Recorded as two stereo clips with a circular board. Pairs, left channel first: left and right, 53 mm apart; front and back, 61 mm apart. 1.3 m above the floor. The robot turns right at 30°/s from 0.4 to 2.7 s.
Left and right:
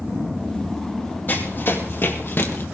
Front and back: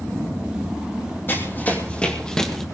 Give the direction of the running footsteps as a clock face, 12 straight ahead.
10 o'clock.